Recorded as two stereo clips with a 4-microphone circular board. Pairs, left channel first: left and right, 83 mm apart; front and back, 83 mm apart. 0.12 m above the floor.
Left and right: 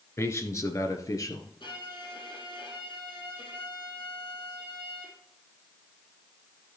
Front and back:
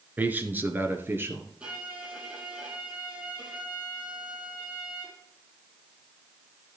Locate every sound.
0.2 s a man speaking: 125° left, 1.4 m
1.6 s a violin: 110° left, 4 m